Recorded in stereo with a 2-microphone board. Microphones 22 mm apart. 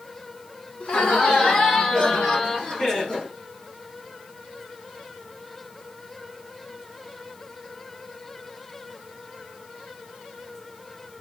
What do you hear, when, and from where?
0.8 s laughter: 55° left (ahead or behind), 2.5 m; by 3.3 s 40° left (ahead or behind), 3.5 m